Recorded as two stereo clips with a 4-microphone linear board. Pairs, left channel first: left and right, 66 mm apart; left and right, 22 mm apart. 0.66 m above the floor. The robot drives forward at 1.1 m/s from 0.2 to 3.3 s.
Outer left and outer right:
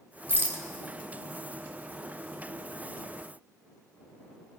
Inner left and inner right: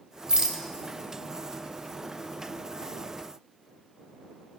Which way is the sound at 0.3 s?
35° right (ahead or behind).